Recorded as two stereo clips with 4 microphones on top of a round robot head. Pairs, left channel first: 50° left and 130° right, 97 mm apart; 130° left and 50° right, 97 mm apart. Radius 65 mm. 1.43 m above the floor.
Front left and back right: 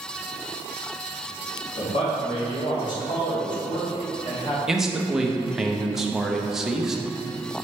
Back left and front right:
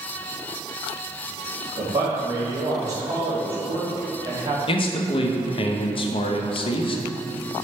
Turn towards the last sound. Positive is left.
turn(degrees=145)